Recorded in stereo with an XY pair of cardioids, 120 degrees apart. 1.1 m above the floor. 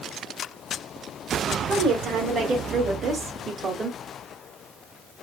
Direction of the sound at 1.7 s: 65° right.